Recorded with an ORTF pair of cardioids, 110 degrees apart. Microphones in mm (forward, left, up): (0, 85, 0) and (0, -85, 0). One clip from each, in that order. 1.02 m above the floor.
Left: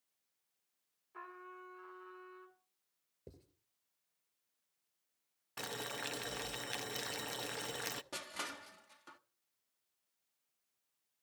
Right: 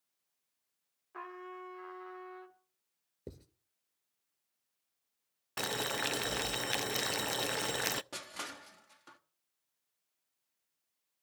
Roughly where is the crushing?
Ahead.